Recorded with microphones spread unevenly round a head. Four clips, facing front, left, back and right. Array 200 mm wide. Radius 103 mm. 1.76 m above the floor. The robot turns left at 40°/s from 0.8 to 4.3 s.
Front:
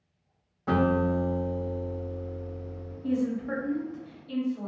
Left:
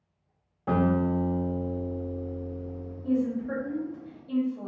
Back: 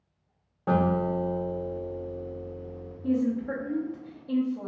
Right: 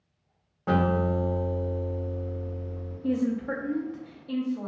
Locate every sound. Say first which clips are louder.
0.7 s a guitar: even, even; 160° right, 1.2 m; by 2.9 s 115° left, 1.2 m
3.0 s a woman speaking: even, back 2 dB; 110° right, 0.8 m; by 4.7 s 160° right, 0.8 m